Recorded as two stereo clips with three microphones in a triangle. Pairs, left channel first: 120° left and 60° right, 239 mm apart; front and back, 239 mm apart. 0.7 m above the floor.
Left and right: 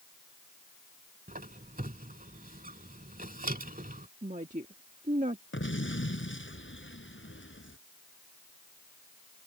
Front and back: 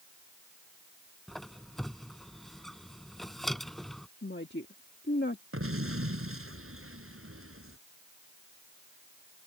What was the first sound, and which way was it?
A squeak, 90° right.